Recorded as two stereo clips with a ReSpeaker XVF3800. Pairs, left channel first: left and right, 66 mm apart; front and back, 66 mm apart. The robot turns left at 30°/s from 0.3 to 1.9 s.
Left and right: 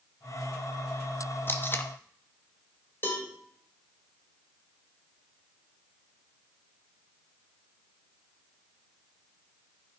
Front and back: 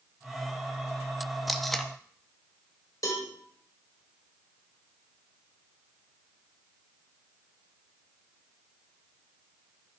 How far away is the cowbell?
About 2.5 m.